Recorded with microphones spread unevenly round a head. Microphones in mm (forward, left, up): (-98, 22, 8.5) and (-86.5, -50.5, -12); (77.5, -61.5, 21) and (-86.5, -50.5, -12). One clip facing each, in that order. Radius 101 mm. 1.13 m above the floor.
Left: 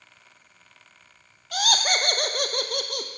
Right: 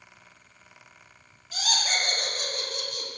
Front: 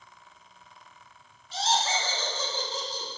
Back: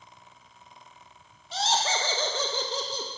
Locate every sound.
1.5 s laughter: 130° left, 0.6 m